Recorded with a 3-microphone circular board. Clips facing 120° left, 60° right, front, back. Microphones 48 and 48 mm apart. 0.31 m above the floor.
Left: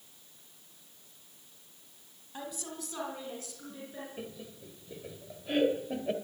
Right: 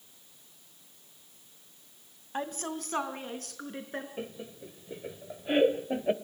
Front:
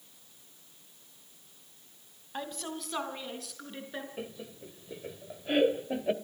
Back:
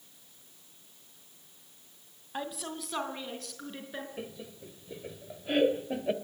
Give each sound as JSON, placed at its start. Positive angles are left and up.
{"t": 2.3, "sound": "a woman speaking", "azimuth_deg": -95, "distance_m": 2.0}
{"t": 4.2, "sound": "laughter", "azimuth_deg": -80, "distance_m": 1.2}